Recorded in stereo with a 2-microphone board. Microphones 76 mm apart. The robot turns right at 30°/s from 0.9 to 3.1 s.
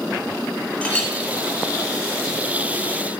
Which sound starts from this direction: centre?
A clink, at 0.8 s.